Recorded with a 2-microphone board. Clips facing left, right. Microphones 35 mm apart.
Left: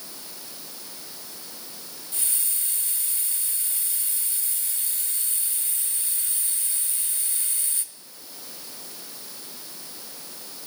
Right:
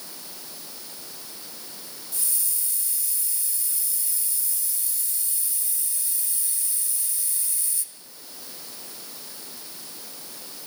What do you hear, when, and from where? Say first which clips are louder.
2.1 s a hiss: left 2 dB; 45° left (ahead or behind), 1.8 m